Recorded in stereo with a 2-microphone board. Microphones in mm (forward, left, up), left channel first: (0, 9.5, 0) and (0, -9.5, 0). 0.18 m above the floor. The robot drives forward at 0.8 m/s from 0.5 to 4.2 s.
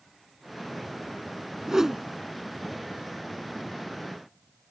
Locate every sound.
1.7 s a whoosh: 30° right (ahead or behind); by 2.0 s 25° right (ahead or behind)